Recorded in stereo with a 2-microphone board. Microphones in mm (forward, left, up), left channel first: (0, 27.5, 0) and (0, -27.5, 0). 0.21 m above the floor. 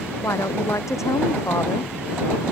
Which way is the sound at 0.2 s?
75° left (ahead or behind).